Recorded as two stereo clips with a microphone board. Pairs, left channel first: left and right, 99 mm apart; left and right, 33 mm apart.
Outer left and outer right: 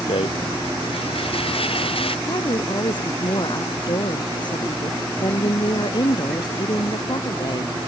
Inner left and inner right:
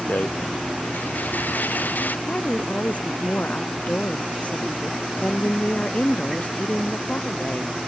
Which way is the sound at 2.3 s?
50° left (ahead or behind).